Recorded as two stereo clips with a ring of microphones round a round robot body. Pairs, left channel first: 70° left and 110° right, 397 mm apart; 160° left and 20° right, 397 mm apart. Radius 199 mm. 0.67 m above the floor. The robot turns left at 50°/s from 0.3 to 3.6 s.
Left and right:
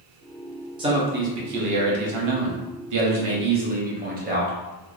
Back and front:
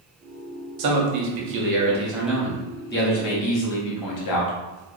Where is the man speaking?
35° right, 0.7 m; by 4.5 s 175° right, 0.7 m.